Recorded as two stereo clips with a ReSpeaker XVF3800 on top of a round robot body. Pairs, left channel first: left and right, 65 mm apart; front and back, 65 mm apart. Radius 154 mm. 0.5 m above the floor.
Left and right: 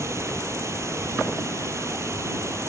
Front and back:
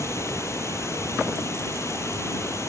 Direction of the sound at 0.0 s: 45° right.